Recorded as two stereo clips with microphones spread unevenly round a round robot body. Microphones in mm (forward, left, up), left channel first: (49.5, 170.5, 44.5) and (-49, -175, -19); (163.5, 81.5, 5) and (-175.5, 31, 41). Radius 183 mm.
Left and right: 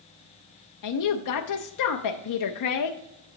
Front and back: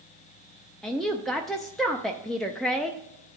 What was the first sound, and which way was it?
A woman speaking, 90° left.